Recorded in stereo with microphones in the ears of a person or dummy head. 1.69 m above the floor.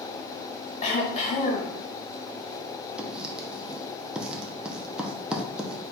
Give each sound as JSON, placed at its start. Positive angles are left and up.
{"t": 0.8, "sound": "throat clearing", "side_deg": 40, "distance_m": 1.2}
{"t": 3.0, "sound": "writing", "side_deg": -5, "distance_m": 0.6}